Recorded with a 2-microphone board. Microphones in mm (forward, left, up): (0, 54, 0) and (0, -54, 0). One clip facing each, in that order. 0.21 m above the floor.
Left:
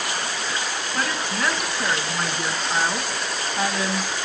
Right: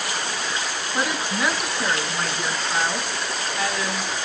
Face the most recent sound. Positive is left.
turn(degrees=35)  # may be behind; listen again after turning